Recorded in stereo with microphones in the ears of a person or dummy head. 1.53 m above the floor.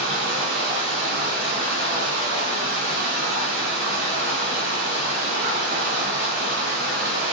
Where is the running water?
60° right (ahead or behind), 1.0 m.